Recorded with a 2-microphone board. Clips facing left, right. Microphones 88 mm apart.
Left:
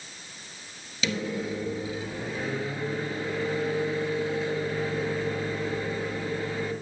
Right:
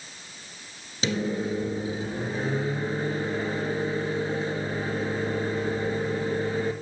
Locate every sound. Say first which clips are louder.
1.0 s a microwave: right 3 dB; 35° right (ahead or behind), 1.5 m